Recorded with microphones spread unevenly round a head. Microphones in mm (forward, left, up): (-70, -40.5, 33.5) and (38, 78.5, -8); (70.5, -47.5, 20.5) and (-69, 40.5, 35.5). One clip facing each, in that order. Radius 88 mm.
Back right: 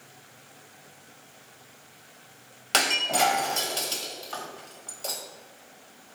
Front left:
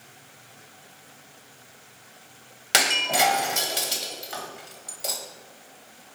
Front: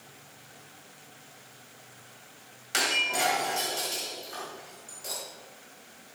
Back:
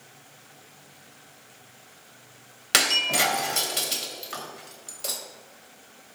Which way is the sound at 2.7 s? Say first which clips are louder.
Front left 1 dB, back 3 dB; 130° left.